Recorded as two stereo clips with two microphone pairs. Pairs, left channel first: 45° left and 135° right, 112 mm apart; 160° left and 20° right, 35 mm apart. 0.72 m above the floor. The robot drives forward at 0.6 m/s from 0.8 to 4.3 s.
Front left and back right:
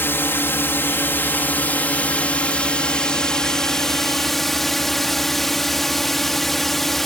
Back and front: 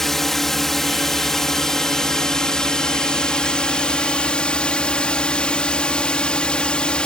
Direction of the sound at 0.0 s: 90° left.